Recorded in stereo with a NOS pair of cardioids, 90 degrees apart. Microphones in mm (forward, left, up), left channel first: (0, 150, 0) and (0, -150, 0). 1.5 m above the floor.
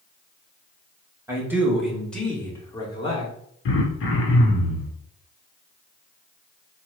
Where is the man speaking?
10° right, 1.9 m; by 3.3 s 20° left, 2 m.